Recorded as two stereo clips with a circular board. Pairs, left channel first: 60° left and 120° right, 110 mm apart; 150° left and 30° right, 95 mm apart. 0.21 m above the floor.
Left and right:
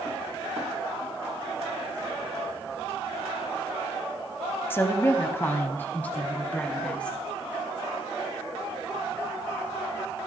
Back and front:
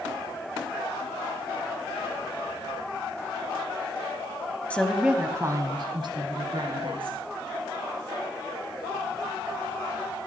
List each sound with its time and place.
4.7 s a woman speaking: 95° left, 1.0 m; by 7.2 s 20° right, 3 m